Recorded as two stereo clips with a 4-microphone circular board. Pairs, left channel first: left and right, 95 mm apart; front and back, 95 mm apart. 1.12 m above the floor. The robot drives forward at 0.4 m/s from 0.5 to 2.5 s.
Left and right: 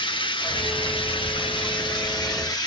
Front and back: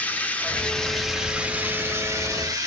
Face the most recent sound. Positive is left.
turn(degrees=130)